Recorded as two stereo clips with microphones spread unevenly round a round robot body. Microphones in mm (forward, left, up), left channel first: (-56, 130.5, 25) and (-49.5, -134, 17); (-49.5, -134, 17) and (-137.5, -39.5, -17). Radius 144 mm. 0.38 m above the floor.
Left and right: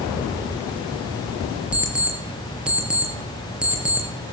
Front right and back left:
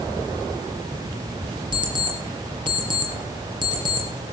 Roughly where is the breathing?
I don't hear breathing.